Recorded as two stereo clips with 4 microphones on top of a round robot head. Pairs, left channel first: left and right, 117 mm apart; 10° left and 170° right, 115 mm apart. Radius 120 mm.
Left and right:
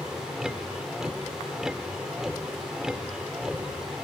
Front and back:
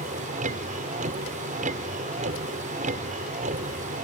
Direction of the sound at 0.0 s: 175° right.